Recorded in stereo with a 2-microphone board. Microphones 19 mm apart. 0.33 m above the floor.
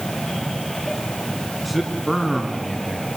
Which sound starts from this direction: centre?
A man speaking, at 1.6 s.